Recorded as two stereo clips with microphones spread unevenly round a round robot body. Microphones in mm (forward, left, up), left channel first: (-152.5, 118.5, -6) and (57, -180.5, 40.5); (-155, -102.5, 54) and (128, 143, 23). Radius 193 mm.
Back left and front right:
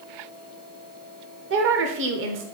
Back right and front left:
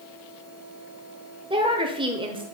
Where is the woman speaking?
15° right, 0.9 m.